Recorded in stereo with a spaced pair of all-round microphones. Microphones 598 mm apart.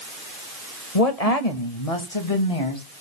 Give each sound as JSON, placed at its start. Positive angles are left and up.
{"t": 0.9, "sound": "a woman speaking", "side_deg": 80, "distance_m": 1.8}